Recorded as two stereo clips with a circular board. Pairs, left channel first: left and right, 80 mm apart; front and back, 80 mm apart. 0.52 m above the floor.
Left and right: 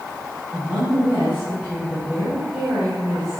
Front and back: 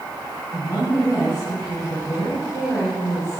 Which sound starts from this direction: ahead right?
A woman speaking, at 0.5 s.